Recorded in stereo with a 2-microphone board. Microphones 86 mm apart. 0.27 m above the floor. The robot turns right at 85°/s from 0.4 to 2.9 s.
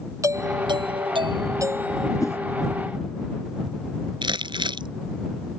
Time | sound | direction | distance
0.2 | a doorbell | 140° right | ?
2.2 | a whoosh | 40° left (ahead or behind) | ?
4.2 | crumpling | 65° right (ahead or behind) | ?